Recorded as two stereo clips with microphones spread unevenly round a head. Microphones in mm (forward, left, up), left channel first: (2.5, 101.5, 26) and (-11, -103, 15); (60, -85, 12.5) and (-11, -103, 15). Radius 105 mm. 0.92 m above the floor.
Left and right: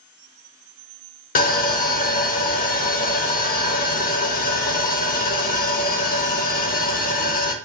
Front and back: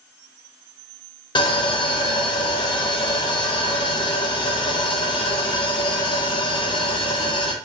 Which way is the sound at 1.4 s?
35° left.